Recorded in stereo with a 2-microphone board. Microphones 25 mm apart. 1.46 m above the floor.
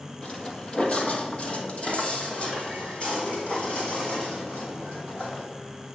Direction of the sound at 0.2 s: 35° left (ahead or behind).